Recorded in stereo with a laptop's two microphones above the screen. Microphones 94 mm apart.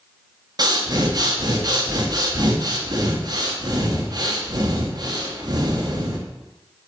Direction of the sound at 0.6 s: 45° right (ahead or behind).